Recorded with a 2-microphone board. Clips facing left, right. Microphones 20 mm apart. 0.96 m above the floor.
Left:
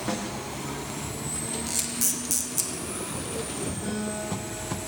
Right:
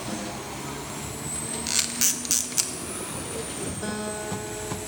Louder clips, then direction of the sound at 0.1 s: Left 3 dB; 55° left (ahead or behind).